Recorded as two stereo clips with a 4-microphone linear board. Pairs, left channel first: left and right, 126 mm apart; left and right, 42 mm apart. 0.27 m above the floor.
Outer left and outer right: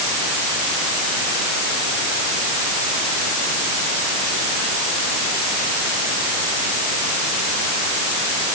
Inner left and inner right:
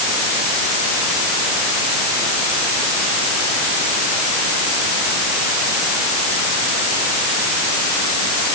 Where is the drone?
I don't hear a drone.